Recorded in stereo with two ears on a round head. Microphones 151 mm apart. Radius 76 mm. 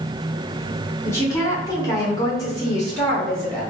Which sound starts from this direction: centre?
A woman speaking, at 1.1 s.